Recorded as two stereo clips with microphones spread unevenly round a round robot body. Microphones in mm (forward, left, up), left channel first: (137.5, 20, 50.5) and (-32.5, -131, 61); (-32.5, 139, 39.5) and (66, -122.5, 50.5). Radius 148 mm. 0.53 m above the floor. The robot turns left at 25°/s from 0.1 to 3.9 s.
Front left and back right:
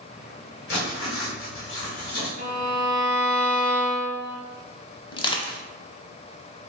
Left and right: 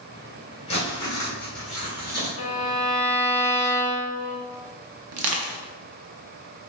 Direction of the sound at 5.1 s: 30° right.